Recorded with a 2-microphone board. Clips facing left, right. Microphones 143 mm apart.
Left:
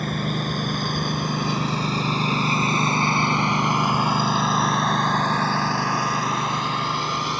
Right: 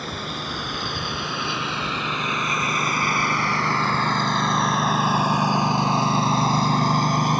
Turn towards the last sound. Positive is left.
turn(degrees=-45)  # may be behind; listen again after turning